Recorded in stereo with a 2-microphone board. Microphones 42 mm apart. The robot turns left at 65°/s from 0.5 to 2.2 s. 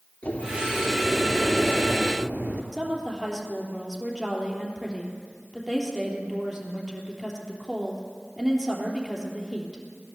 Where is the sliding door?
50° left, 2.5 m; by 2.6 s 60° right, 2.5 m.